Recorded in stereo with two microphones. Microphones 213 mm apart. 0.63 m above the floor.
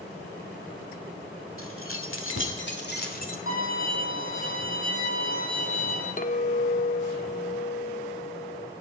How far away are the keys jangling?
About 1.6 m.